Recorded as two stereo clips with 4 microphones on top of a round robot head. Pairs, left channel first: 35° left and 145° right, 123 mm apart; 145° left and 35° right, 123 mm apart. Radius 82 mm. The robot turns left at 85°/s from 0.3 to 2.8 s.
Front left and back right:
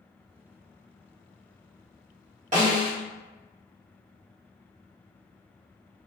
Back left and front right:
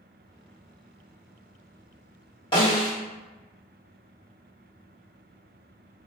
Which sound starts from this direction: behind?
A snare drum, at 2.5 s.